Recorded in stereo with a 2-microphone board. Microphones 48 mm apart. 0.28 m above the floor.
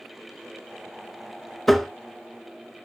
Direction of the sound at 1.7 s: 5° left (ahead or behind).